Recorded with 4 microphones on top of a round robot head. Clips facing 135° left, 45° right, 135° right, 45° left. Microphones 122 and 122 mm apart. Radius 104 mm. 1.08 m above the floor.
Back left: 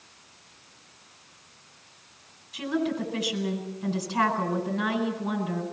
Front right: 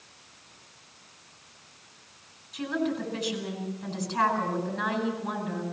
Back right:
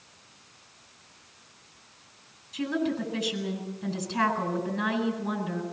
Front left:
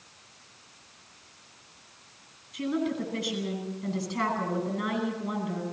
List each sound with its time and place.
2.5 s a woman speaking: 145° right, 9 m